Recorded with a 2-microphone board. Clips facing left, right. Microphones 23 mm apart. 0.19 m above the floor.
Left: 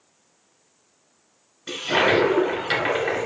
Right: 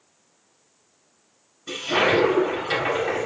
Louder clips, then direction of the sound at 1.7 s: Left 1 dB; 25° left (ahead or behind).